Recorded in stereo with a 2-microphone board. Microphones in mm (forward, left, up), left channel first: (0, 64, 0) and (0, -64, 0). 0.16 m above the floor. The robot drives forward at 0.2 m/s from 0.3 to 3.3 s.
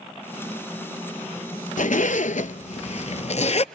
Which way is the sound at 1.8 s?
80° left.